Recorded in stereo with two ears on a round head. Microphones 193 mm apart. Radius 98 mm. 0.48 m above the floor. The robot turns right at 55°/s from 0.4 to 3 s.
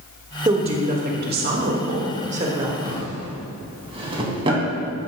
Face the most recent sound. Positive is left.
turn(degrees=-25)  # may be behind; listen again after turning